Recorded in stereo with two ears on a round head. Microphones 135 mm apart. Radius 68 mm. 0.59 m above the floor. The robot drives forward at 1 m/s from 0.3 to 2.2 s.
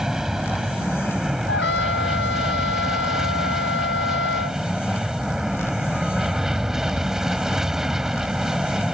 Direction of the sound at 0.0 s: 5° right (ahead or behind).